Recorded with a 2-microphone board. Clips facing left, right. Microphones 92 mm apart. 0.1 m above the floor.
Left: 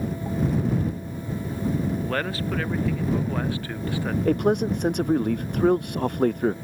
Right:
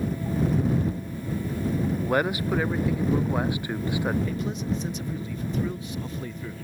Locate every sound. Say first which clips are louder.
2.0 s a man speaking: right 3 dB; 15° right (ahead or behind)
4.2 s a man speaking: left 8 dB; 60° left (ahead or behind)